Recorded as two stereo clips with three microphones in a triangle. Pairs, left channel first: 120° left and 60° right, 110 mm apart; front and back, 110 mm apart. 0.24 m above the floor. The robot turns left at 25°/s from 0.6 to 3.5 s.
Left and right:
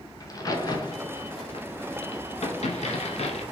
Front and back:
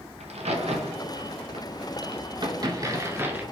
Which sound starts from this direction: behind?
A crack, at 0.2 s.